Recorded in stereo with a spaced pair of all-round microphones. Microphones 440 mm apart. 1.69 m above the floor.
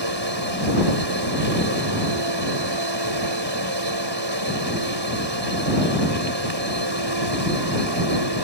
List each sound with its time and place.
0.0 s a machine running: 70° right (ahead or behind)